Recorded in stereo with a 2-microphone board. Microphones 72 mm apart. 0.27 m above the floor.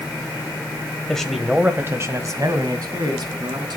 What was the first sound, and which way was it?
A man speaking, 10° left (ahead or behind).